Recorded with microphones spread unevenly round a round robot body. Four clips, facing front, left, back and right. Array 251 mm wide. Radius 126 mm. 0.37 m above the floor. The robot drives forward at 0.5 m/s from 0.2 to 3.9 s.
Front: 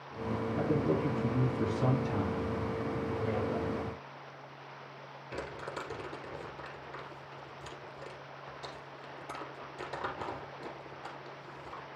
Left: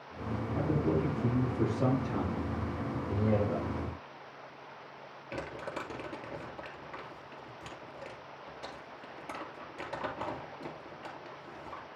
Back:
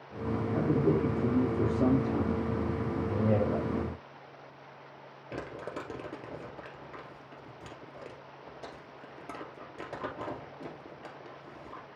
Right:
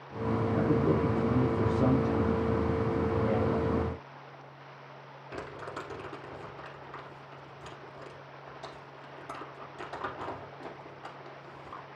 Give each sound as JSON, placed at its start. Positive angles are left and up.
{"t": 0.6, "sound": "a man speaking", "azimuth_deg": -155, "distance_m": 4.5}
{"t": 3.1, "sound": "a man speaking", "azimuth_deg": -175, "distance_m": 1.5}
{"t": 5.3, "sound": "crumpling", "azimuth_deg": 165, "distance_m": 1.9}